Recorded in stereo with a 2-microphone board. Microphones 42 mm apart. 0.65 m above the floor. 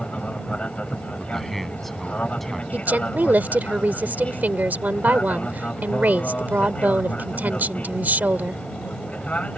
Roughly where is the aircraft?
Left.